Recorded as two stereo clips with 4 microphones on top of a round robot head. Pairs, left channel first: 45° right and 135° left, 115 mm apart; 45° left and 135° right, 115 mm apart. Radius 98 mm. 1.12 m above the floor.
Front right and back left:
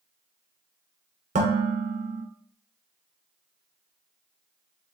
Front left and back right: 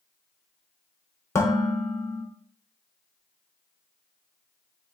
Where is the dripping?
I don't hear dripping.